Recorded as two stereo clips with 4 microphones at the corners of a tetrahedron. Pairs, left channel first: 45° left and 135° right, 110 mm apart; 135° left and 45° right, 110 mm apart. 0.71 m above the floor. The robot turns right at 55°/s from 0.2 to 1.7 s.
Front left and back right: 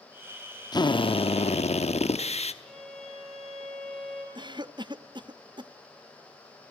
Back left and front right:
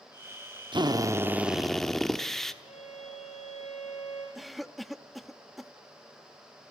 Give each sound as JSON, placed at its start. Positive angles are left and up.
{"t": 0.7, "sound": "a drill", "azimuth_deg": -5, "distance_m": 1.0}
{"t": 2.6, "sound": "a violin", "azimuth_deg": 135, "distance_m": 5.0}
{"t": 4.3, "sound": "a cough", "azimuth_deg": -135, "distance_m": 0.8}